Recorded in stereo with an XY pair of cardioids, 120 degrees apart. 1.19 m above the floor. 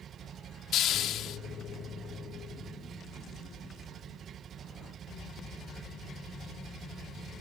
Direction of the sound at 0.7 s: 65° left.